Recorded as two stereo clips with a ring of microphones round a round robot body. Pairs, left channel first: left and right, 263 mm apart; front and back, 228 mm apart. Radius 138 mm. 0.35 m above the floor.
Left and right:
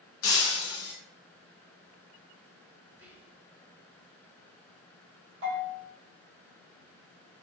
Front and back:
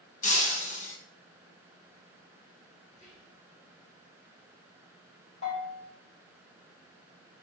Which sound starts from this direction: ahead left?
Breaking glass, at 0.2 s.